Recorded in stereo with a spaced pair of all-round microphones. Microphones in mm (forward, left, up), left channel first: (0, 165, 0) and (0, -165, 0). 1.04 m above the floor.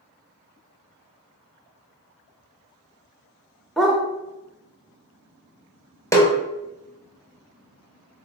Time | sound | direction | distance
3.8 | a dog barking | centre (ahead or behind) | 0.7 m
6.1 | a snare drum | 10° left (ahead or behind) | 0.8 m